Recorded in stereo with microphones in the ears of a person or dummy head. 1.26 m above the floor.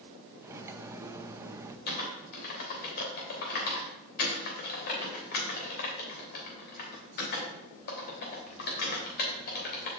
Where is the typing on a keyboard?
55° left (ahead or behind), 3 m.